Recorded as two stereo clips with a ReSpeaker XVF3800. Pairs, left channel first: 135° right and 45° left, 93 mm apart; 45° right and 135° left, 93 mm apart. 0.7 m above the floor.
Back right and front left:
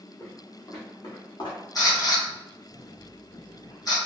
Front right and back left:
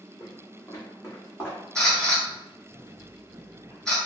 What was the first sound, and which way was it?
Footsteps, 80° right.